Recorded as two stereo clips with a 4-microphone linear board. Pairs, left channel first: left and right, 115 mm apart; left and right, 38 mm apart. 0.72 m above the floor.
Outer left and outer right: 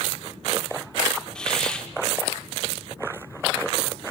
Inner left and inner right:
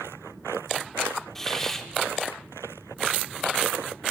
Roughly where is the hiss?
Centre.